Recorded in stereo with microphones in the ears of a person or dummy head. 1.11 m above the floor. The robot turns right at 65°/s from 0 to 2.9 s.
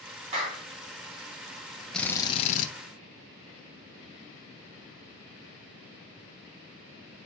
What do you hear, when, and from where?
0.3 s a clap: 40° right (ahead or behind), 3 m; by 0.6 s 65° right (ahead or behind), 3 m
1.9 s a drill: straight ahead, 1.2 m; by 2.7 s 50° left, 1.2 m